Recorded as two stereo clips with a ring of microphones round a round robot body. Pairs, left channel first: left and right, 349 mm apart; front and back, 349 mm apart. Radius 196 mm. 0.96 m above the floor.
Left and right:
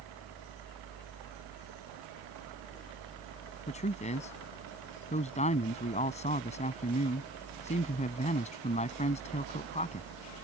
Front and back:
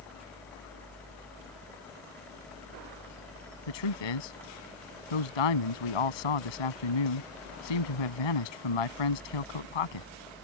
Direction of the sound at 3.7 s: 15° left.